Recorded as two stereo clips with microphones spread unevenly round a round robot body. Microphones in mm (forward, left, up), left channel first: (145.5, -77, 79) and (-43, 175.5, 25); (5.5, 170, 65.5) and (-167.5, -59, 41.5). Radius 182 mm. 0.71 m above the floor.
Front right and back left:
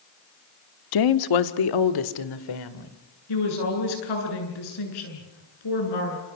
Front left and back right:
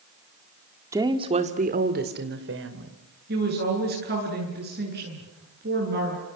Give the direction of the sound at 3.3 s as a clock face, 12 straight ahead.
2 o'clock.